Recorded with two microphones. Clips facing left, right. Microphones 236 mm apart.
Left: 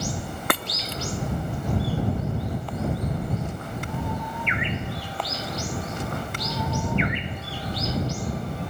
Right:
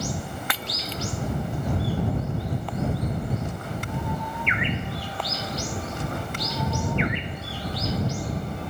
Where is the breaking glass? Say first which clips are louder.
Left 4 dB; 55° left (ahead or behind).